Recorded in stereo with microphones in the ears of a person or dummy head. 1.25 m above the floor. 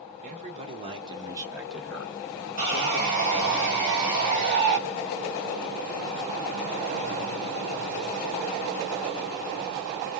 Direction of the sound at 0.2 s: 35° right (ahead or behind).